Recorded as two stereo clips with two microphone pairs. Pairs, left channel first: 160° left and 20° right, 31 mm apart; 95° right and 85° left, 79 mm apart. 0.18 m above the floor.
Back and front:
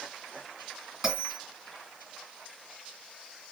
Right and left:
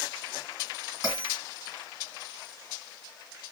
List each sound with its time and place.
1.0 s a bell: 100° right, 2 m